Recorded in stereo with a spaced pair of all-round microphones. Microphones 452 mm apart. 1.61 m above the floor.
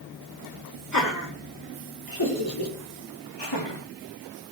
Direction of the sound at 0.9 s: 40° left (ahead or behind).